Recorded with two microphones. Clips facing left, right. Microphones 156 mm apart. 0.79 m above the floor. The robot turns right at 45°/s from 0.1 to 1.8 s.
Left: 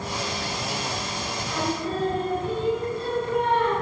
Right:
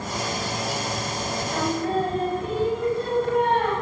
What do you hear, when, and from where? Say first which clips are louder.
1.5 s singing: right 3 dB; 35° right (ahead or behind), 4.5 m; by 3.7 s 50° right (ahead or behind), 4.5 m